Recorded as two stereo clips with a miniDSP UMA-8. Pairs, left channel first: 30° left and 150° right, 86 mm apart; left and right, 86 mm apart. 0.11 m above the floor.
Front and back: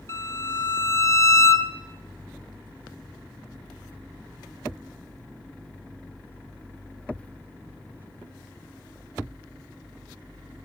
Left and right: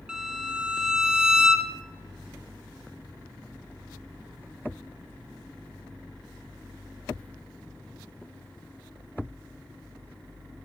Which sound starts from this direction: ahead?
A violin, at 0.1 s.